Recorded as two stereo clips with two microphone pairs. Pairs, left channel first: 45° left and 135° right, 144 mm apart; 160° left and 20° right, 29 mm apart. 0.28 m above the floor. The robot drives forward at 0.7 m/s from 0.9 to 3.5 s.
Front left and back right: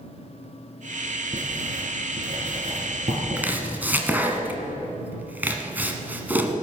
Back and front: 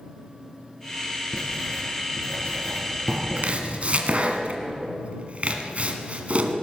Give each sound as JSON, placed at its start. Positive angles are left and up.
{"t": 1.3, "sound": "writing", "azimuth_deg": -170, "distance_m": 2.5}
{"t": 3.4, "sound": "chopping", "azimuth_deg": -55, "distance_m": 1.5}